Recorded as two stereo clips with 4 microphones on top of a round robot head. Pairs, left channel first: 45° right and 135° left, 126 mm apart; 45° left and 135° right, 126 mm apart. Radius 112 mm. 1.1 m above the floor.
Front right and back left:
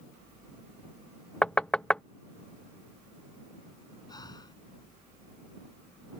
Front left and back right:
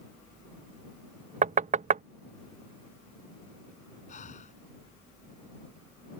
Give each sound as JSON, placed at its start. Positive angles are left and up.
{"t": 1.4, "sound": "knocking", "azimuth_deg": -125}
{"t": 4.1, "sound": "breathing", "azimuth_deg": 15}